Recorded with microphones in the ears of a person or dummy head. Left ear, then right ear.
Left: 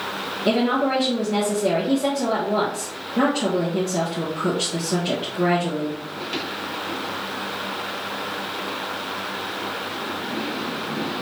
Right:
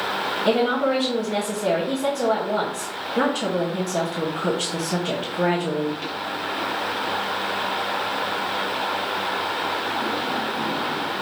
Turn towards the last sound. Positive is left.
turn(degrees=-15)  # may be behind; listen again after turning